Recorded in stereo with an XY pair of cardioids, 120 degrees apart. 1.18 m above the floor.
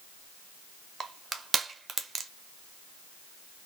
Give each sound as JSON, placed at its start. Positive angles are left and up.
{"t": 1.0, "sound": "crushing", "azimuth_deg": -30, "distance_m": 0.7}